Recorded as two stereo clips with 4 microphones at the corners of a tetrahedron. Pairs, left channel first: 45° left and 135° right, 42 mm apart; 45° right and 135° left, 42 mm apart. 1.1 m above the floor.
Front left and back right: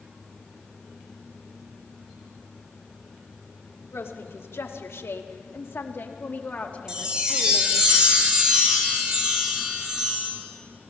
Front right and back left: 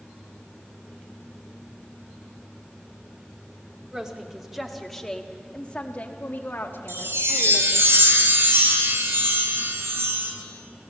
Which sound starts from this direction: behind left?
A chime, at 6.9 s.